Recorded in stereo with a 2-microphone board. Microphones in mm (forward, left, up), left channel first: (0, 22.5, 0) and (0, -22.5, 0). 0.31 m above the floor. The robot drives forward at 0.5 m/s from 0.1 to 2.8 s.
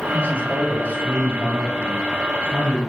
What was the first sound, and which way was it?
A man speaking, 35° left (ahead or behind).